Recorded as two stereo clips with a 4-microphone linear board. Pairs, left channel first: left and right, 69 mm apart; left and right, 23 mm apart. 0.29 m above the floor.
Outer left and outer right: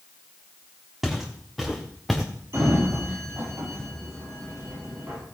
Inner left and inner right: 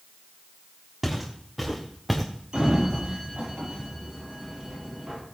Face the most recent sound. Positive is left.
turn(degrees=-40)  # may be behind; listen again after turning